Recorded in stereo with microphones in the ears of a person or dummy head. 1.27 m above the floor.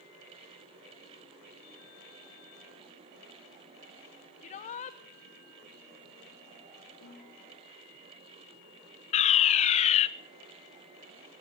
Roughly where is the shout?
Left.